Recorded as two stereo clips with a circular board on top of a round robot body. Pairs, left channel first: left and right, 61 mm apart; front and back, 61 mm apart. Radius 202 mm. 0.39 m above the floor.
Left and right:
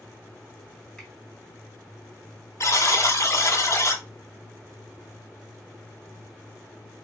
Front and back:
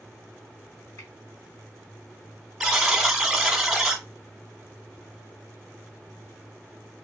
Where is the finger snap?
15° left, 3 m.